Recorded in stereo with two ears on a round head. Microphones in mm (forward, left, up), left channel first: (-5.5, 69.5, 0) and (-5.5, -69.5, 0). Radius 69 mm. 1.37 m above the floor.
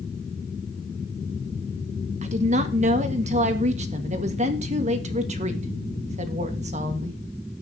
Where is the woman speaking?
45° right (ahead or behind), 1.8 m.